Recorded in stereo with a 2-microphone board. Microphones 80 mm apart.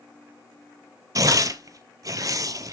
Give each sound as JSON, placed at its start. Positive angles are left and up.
{"t": 1.1, "sound": "tearing paper", "side_deg": -50, "distance_m": 0.6}